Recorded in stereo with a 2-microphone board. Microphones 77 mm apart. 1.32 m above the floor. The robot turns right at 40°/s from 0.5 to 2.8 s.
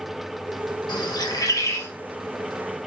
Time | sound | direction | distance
0.9 | a bird | 70° left (ahead or behind) | 1.0 m